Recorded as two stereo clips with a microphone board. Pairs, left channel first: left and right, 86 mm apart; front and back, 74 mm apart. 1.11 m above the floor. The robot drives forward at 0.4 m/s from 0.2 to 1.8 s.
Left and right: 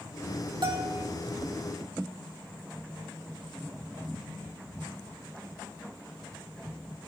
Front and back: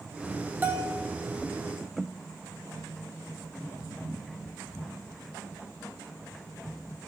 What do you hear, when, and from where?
0.6 s a bell: 115° right, 2.5 m; by 1.1 s 120° right, 2.5 m